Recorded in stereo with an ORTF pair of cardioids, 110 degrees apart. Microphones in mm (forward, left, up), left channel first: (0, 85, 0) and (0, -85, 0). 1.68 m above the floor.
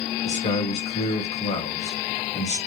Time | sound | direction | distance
0.2 | a man speaking | 40° left | 1.5 m